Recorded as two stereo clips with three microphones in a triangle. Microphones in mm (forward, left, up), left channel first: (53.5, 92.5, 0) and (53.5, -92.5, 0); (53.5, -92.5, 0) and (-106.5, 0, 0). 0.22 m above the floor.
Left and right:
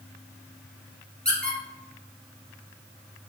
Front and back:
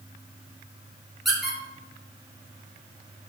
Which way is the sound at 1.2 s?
120° right.